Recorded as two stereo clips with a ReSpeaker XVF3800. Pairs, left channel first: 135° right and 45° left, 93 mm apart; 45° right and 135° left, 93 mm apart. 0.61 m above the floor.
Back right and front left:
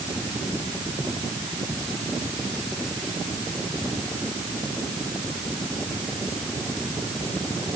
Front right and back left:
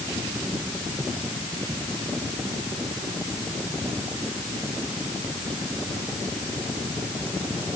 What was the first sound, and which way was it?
Only background noise.